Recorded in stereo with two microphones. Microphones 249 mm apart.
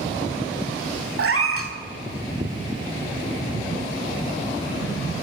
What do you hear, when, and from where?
1.2 s a cat meowing: 60° right (ahead or behind), 0.8 m